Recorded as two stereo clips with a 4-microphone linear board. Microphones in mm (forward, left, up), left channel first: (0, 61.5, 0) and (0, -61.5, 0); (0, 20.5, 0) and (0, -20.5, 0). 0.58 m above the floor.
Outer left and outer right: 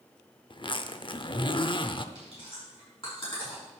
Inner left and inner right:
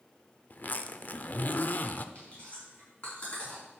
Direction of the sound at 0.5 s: 40° left (ahead or behind).